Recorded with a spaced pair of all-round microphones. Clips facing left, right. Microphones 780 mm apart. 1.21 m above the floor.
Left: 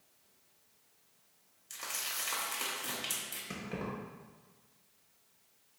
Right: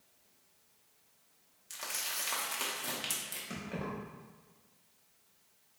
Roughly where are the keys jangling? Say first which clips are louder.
Even; left.